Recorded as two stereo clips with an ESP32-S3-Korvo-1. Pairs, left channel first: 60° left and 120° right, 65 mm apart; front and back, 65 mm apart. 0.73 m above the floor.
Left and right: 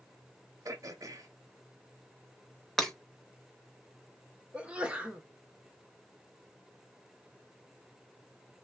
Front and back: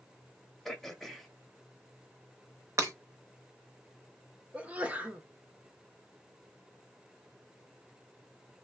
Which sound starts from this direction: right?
Throat clearing, at 0.7 s.